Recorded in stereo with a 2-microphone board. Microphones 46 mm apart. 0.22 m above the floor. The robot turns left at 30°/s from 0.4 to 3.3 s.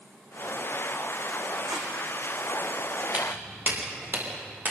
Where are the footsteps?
35° right (ahead or behind), 7.5 m; by 4.7 s 40° right (ahead or behind), 8.5 m.